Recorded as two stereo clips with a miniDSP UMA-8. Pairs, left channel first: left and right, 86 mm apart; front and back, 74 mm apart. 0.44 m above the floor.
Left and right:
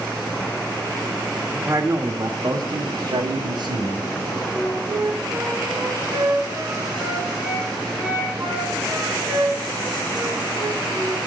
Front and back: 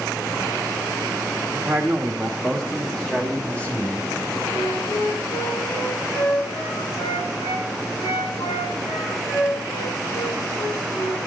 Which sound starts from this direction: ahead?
A flute, at 4.5 s.